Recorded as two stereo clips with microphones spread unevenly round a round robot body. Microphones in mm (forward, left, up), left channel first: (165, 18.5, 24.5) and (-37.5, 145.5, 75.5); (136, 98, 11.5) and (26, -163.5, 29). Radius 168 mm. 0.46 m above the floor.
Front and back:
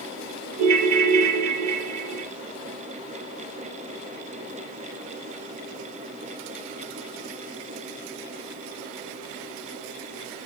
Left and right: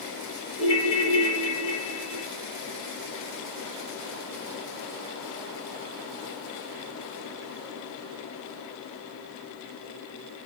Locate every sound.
0.6 s a ringtone: 140° left, 0.9 m